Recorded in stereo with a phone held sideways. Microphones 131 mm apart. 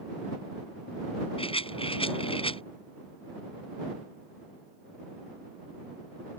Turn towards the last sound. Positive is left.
turn(degrees=45)  # may be behind; listen again after turning